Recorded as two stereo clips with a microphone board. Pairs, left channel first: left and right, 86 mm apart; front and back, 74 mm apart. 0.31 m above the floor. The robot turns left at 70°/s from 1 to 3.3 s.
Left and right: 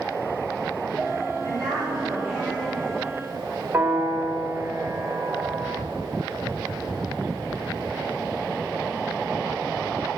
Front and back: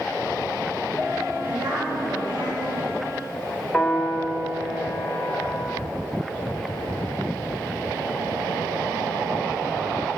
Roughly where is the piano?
Right.